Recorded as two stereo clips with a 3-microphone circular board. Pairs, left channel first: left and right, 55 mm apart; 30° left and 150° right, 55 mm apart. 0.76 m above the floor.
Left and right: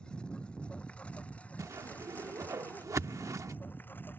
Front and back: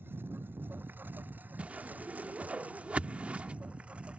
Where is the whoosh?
85° right.